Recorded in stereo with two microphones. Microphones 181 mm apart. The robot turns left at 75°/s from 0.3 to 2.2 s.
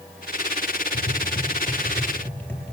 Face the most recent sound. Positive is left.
turn(degrees=10)  # may be behind; listen again after turning